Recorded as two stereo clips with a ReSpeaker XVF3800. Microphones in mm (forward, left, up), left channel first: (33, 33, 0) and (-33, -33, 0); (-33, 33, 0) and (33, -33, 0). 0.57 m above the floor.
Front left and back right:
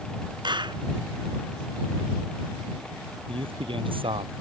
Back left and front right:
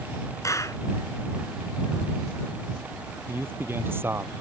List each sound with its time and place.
0.4 s a clap: 170° right
3.3 s a man speaking: 110° right